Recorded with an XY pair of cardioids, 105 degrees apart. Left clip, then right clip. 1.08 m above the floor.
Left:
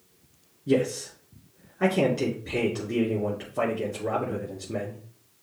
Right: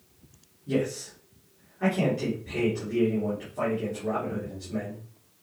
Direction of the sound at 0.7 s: 65° left.